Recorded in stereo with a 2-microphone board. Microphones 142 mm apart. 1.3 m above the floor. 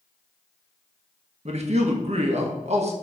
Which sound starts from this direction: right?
A man speaking, at 1.4 s.